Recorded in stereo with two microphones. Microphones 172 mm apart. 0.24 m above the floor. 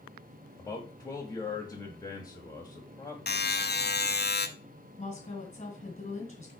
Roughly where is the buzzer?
Left.